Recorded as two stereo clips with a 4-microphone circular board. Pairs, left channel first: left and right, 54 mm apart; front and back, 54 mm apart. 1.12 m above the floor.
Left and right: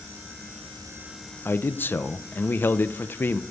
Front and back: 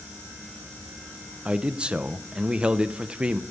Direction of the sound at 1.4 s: 115° left.